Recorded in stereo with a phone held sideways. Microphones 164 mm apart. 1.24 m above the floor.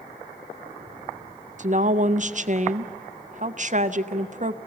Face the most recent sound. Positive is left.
turn(degrees=-50)  # may be behind; listen again after turning